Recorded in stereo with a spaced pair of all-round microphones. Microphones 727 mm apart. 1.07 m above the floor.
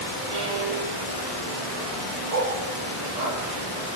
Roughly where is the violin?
Right.